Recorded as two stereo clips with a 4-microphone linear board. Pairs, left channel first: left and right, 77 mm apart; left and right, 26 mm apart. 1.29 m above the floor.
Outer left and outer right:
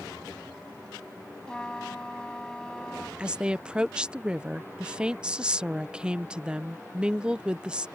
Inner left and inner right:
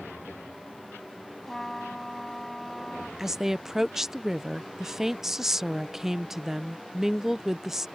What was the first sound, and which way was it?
A trumpet, 10° left (ahead or behind).